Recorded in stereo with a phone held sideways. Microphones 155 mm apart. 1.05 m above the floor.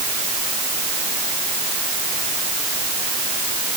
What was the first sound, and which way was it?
Only background noise.